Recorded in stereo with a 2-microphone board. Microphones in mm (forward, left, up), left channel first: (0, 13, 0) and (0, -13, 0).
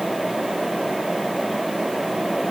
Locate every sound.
Only background noise.